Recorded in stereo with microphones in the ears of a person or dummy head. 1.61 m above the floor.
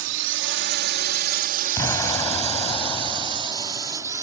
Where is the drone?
70° right (ahead or behind); by 4.2 s 15° right (ahead or behind).